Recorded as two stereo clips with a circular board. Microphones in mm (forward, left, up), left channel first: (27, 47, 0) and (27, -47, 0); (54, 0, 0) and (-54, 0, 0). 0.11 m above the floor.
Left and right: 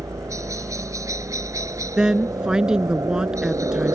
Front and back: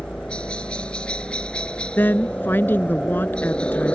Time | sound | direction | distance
0.0 | a helicopter | 75° right | ?
2.0 | a woman speaking | 25° right | ?